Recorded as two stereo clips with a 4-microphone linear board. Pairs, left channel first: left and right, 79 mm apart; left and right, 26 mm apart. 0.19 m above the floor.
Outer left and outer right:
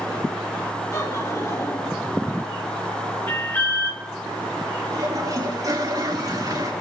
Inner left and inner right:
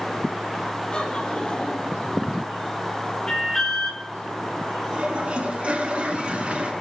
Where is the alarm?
30° left (ahead or behind), 2.5 m.